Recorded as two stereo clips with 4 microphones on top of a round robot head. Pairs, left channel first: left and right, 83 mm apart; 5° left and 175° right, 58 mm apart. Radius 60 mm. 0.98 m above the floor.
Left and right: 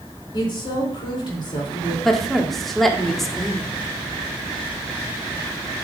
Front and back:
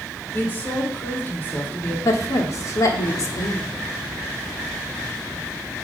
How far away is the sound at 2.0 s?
About 1.4 m.